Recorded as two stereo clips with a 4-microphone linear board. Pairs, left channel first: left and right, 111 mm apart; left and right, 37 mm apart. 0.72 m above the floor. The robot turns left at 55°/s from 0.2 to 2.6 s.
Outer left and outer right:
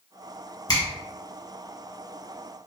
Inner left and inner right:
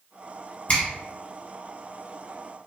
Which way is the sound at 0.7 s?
40° left (ahead or behind).